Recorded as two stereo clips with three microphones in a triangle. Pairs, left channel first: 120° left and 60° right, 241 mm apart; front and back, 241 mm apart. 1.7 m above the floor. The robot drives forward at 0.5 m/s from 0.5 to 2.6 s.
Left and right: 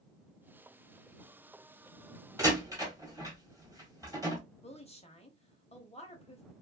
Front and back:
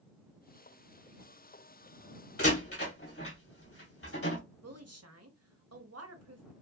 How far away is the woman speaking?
About 1.0 m.